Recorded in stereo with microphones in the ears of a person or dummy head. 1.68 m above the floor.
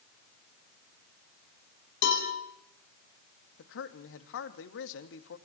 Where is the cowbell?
65° left (ahead or behind), 7 m.